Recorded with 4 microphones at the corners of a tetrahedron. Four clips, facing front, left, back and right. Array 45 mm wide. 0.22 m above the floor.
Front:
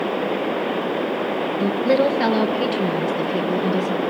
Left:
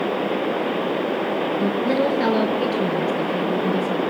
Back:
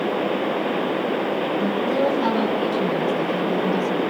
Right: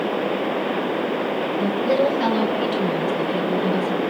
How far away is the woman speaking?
About 3 m.